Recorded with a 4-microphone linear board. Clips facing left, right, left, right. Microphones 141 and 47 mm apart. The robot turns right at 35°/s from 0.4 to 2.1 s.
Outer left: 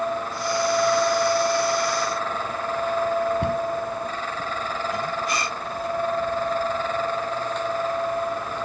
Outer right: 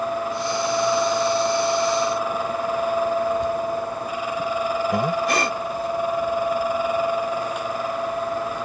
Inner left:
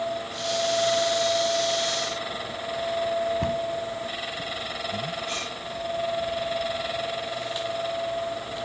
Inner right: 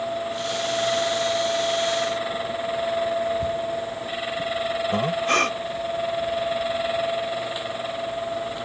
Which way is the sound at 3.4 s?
70° left (ahead or behind).